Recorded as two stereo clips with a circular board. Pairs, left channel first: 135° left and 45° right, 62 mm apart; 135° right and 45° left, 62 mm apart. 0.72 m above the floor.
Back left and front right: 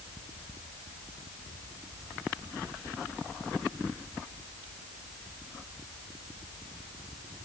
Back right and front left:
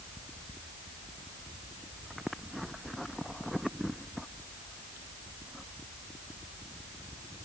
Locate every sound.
Only background noise.